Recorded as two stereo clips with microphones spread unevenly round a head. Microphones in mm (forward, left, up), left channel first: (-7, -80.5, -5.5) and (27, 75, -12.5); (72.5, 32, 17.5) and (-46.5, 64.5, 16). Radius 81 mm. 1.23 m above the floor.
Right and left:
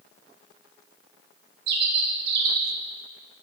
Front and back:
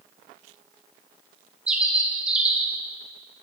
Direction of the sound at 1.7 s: 80° left.